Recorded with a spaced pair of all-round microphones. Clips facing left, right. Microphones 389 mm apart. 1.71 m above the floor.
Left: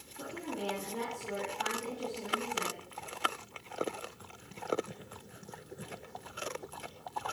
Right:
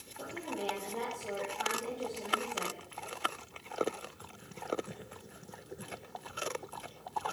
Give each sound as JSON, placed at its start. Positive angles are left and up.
{"t": 0.2, "sound": "a woman speaking", "side_deg": 20, "distance_m": 3.5}